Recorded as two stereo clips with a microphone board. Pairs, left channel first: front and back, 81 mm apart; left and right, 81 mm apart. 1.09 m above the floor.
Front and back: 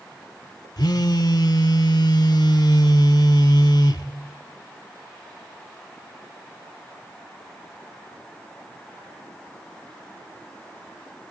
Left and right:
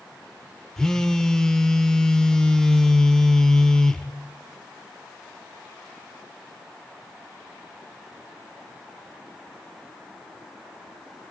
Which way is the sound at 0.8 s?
10° left.